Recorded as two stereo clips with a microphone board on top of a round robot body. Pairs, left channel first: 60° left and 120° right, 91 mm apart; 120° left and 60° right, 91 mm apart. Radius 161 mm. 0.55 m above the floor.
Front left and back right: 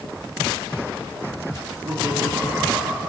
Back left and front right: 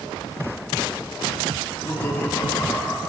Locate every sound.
1.6 s laughter: 170° right, 2.5 m; by 3.1 s 175° left, 4.5 m